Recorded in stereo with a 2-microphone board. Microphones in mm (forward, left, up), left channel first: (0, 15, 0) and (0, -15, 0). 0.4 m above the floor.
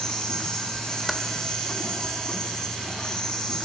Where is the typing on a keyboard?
Centre (ahead or behind), 1.6 m.